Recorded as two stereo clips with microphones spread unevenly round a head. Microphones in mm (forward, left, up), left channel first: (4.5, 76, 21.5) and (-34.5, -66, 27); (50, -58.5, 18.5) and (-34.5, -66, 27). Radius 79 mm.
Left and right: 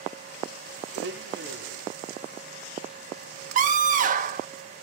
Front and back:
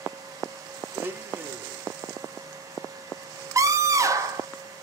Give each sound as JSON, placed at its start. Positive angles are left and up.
{"t": 0.9, "sound": "a blender", "azimuth_deg": -110, "distance_m": 0.8}
{"t": 3.5, "sound": "a scream", "azimuth_deg": -125, "distance_m": 0.9}